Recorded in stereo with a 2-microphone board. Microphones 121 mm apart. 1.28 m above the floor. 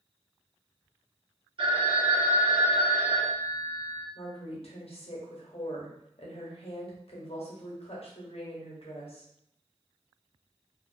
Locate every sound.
1.6 s a phone ringing: 50° right (ahead or behind), 1.0 m
4.2 s a woman speaking: 60° left (ahead or behind), 0.8 m